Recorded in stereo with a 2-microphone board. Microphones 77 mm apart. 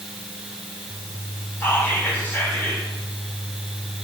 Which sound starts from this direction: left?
Whispering, at 1.6 s.